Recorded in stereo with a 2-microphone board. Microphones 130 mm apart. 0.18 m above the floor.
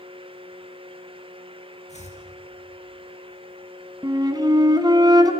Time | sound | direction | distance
1.9 | chopping | 60° left (ahead or behind) | 4 m
4.0 | a flute | 30° right (ahead or behind) | 1.4 m